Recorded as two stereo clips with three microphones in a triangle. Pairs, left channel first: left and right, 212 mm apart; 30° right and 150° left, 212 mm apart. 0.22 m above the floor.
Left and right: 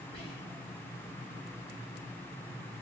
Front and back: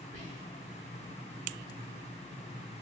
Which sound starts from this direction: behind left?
Whispering, at 0.1 s.